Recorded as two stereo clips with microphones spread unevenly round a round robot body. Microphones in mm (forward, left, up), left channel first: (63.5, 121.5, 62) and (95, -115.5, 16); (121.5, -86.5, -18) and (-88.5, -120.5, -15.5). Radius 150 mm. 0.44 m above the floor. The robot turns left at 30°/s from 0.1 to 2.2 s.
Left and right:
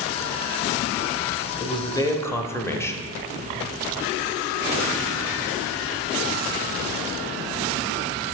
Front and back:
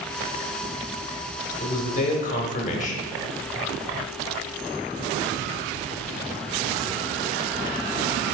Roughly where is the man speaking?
Ahead left.